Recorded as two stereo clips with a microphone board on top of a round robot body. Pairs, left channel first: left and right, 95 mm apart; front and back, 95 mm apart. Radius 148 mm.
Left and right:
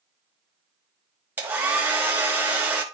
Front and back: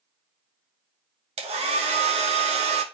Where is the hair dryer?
165° right, 1.1 m.